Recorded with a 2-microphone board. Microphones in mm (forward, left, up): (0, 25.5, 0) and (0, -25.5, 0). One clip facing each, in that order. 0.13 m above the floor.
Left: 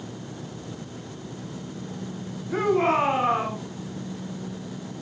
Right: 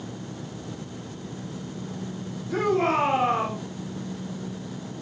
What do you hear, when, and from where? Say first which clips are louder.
2.5 s a shout: left 1 dB; 15° left (ahead or behind), 9 m